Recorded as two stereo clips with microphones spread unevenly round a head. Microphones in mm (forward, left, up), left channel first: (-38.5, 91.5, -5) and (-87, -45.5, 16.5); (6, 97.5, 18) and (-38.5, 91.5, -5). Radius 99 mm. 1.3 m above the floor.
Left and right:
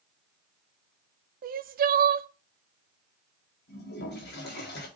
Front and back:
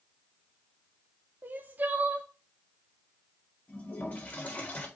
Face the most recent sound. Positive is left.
turn(degrees=60)